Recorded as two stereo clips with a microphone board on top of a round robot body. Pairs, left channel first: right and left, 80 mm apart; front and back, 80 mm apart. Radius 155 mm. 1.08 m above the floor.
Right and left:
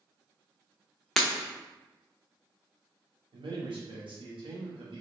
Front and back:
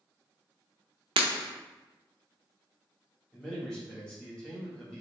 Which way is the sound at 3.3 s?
80° left.